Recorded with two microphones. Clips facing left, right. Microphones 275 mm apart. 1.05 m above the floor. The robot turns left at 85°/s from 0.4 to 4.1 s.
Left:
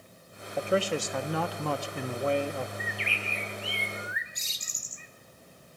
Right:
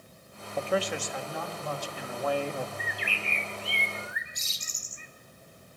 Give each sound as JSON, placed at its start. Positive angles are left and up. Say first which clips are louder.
{"t": 0.6, "sound": "a man speaking", "louder": "left 2 dB", "azimuth_deg": 175, "distance_m": 1.2}
{"t": 2.8, "sound": "a bird", "louder": "left 1 dB", "azimuth_deg": 55, "distance_m": 1.5}